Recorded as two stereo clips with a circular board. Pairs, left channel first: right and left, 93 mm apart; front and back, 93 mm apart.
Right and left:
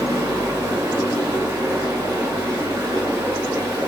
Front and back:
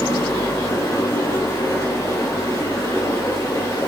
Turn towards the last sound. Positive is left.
turn(degrees=50)